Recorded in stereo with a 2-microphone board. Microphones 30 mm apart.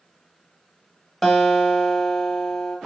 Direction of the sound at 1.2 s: Centre (ahead or behind).